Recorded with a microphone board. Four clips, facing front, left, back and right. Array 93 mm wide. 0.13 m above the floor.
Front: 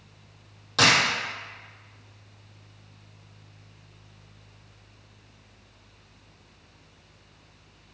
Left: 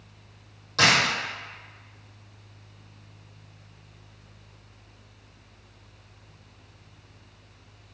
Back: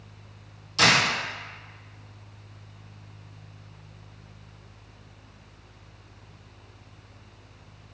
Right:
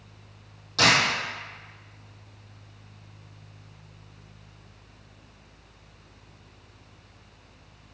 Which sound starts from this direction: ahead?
A dropped coin, at 0.8 s.